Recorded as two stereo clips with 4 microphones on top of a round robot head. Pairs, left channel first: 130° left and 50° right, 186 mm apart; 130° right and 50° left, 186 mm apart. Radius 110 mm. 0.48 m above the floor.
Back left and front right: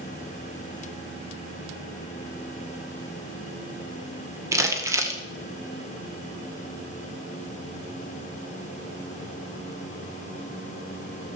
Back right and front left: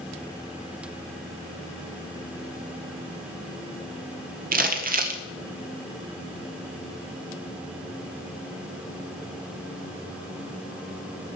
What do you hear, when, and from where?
4.5 s crumpling: 25° left, 1.6 m